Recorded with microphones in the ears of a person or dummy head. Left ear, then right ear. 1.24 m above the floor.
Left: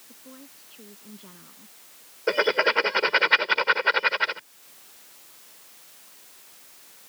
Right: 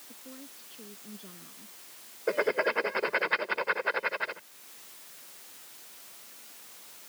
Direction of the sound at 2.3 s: 85° left.